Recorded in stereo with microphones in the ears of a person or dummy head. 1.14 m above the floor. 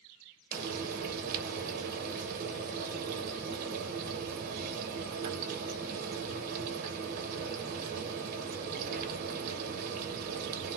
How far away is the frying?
About 1.0 m.